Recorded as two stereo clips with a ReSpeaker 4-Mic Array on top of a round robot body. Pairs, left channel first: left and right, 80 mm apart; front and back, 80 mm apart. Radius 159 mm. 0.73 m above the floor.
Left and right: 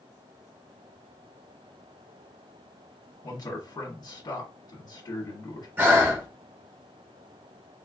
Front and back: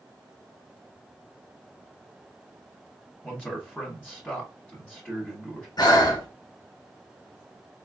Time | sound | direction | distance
3.2 | a man speaking | 80° left | 1.2 m
5.8 | breathing | 25° right | 1.2 m